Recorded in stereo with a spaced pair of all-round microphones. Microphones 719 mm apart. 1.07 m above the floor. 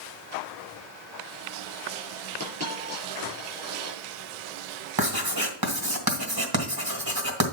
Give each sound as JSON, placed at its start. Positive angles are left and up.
{"t": 2.4, "sound": "a dropped coin", "side_deg": 20, "distance_m": 5.5}
{"t": 5.0, "sound": "writing", "side_deg": -30, "distance_m": 1.6}